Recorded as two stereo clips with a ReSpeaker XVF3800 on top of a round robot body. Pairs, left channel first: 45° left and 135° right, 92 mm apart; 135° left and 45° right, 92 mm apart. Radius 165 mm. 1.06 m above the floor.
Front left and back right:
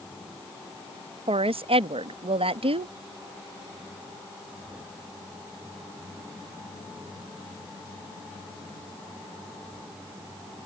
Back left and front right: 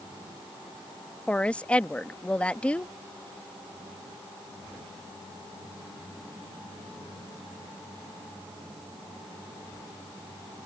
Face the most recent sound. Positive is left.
turn(degrees=-145)